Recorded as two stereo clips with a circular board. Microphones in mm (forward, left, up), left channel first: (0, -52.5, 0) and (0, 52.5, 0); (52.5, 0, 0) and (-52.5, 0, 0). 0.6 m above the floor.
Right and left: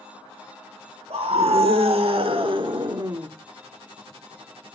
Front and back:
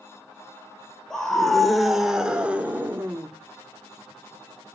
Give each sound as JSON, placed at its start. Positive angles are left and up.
{"t": 1.1, "sound": "a scream", "azimuth_deg": 85, "distance_m": 2.5}